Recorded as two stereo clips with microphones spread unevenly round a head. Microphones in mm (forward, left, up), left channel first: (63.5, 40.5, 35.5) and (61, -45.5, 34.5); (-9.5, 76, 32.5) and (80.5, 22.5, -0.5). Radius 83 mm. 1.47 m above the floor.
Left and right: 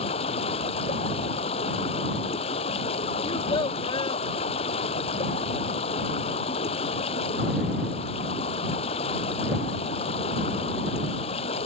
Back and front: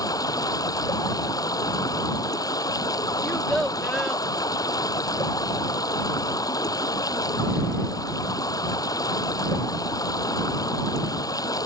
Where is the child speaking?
70° left.